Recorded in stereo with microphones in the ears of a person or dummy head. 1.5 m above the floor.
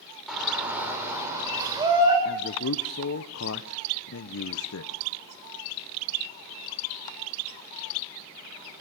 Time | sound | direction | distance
0.3 | a shout | centre (ahead or behind) | 6.5 m
2.2 | a man speaking | 65° left (ahead or behind) | 1.1 m